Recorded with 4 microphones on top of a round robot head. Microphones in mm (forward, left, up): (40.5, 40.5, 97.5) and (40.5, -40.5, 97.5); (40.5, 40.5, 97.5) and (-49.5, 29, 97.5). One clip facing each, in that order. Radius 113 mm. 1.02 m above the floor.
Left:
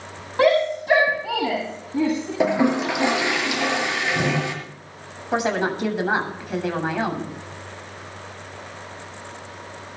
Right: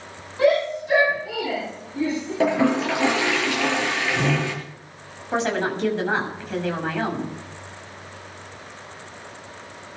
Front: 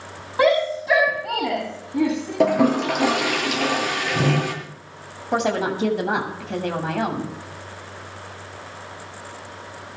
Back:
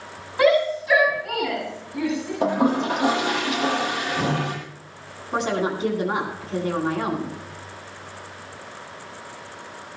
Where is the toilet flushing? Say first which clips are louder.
Even, front 3 dB; 15° left, 6 m.